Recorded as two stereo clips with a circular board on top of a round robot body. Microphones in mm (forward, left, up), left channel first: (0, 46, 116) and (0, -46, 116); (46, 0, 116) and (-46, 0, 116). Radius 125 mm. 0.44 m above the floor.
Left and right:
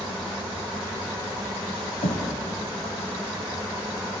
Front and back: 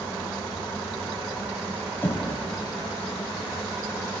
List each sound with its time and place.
2.0 s knocking: 70° left, 2 m